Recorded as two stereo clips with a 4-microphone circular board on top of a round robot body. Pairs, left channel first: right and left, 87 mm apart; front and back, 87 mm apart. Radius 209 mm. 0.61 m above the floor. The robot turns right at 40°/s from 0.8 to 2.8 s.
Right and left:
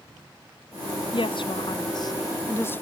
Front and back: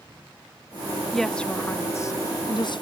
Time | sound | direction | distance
1.1 | a woman speaking | 90° right | ?